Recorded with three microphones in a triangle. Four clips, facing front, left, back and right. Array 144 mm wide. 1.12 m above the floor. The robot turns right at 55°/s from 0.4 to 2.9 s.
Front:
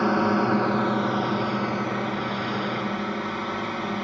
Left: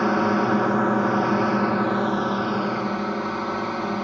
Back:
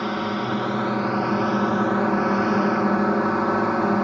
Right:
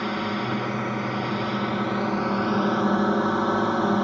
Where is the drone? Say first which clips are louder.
Left 7 dB, front 4 dB; 65° left; by 4.0 s 160° right.